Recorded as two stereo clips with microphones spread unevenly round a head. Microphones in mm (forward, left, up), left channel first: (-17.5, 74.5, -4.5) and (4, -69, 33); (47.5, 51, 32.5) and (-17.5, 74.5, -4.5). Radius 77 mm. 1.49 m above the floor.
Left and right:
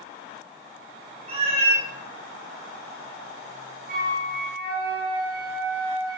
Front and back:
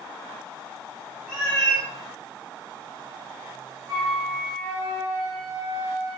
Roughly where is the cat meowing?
Right.